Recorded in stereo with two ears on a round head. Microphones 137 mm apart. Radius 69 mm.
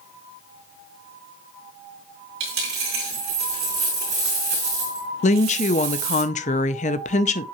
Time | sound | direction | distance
2.4 | a dropped coin | 75° right (ahead or behind) | 4 m
5.2 | a woman speaking | 50° left (ahead or behind) | 0.6 m